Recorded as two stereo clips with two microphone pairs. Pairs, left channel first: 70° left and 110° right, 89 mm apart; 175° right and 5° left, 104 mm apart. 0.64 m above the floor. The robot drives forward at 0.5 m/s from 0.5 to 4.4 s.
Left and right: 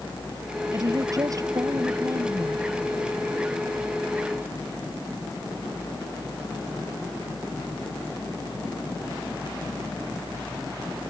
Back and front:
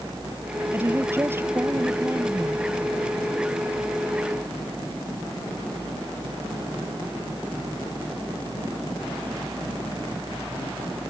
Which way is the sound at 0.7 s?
60° right.